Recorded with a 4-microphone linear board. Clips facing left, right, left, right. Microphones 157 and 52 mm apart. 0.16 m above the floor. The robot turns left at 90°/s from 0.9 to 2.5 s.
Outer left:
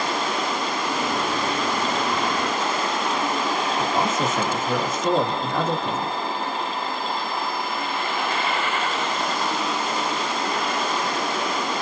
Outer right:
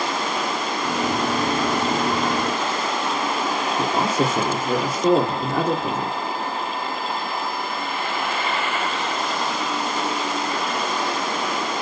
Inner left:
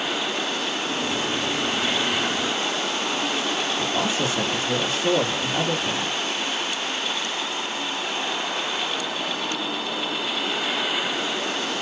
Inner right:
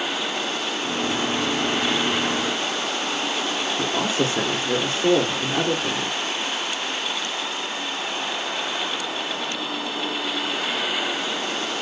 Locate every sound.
3.8 s a man speaking: 35° right (ahead or behind), 3.5 m